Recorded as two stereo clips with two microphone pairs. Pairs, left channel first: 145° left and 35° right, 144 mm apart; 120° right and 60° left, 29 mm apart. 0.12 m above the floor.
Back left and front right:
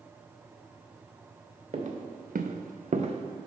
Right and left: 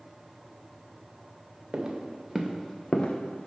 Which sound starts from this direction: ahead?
Footsteps, at 1.7 s.